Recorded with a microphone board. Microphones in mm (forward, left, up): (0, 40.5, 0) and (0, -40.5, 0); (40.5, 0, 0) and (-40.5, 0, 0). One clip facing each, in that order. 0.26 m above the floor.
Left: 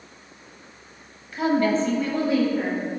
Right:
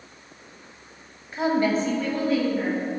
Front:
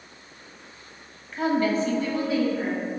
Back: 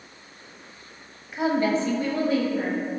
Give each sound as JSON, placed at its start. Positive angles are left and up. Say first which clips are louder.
{"t": 1.3, "sound": "a woman speaking", "louder": "left 1 dB, even", "azimuth_deg": -110, "distance_m": 1.4}